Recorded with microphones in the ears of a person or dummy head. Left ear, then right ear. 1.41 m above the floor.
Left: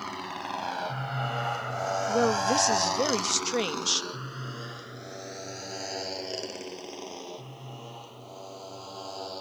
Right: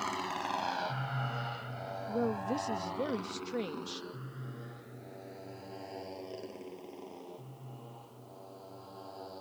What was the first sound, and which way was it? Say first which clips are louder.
A motorcycle: even; 15° right (ahead or behind).